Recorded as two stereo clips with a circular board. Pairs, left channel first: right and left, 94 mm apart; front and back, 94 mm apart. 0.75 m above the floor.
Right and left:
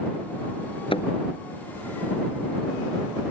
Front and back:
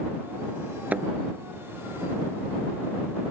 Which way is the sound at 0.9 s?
105° right.